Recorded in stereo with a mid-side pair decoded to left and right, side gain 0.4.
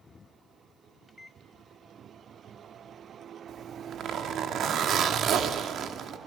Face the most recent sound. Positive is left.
turn(degrees=-65)